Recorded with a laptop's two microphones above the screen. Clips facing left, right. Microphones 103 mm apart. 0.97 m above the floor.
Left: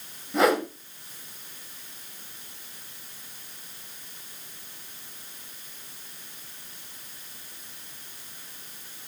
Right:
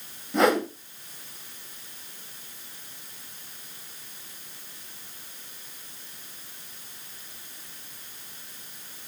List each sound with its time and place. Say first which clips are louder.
0.3 s a whoosh: even; 5° left (ahead or behind), 1.9 m